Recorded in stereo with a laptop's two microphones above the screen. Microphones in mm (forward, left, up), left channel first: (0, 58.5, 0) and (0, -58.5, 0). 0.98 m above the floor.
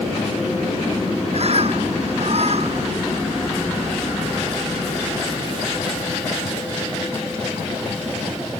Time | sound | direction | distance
1.3 | a bird | 55° right (ahead or behind) | ?